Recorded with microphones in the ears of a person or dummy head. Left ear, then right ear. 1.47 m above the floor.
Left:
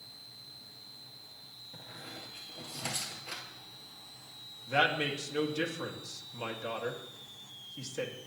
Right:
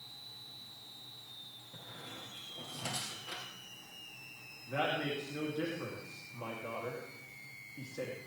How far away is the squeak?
About 2.5 m.